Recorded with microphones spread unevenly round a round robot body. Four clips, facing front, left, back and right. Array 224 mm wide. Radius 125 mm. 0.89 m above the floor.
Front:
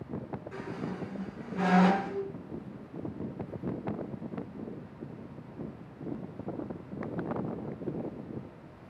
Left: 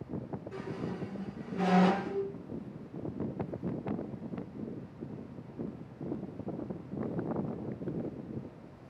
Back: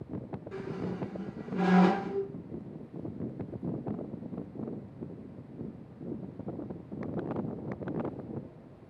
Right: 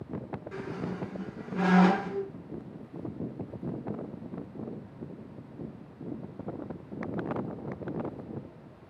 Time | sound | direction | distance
0.5 | a squeak | 125° right | 0.5 m